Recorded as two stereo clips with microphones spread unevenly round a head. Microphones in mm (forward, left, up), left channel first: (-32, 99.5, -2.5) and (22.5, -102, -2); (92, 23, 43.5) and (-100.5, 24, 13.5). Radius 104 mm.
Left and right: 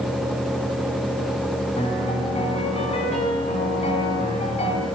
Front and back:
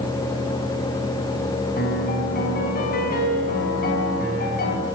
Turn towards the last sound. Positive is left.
turn(degrees=40)